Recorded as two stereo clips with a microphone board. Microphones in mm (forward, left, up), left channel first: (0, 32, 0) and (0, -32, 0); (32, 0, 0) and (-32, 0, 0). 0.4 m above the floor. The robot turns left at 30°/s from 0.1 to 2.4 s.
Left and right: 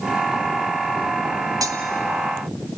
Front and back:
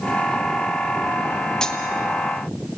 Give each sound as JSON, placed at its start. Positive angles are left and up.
{"t": 1.6, "sound": "cutlery clinking", "azimuth_deg": -80, "distance_m": 1.3}